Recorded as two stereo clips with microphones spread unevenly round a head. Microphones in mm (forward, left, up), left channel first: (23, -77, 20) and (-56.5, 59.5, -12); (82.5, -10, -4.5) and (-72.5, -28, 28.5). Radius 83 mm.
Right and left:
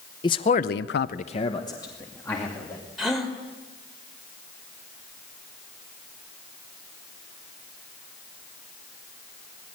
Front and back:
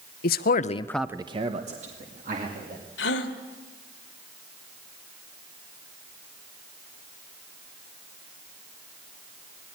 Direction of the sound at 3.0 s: 25° left.